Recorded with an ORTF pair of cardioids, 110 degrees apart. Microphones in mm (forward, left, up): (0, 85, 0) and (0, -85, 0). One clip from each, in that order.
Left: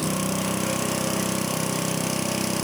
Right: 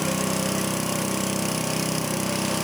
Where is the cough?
No cough in this recording.